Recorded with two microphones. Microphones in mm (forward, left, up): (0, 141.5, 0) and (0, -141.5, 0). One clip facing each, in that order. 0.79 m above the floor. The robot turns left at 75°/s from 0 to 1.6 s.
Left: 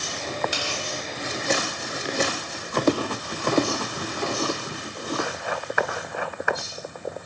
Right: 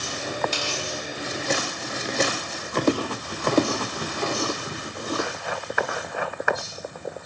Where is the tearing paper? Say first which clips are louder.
Right 1 dB; 10° left (ahead or behind), 1.1 m; by 0.8 s 20° left (ahead or behind), 1.1 m.